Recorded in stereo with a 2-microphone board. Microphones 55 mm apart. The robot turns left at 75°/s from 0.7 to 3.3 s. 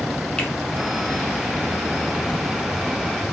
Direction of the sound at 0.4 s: 15° left (ahead or behind).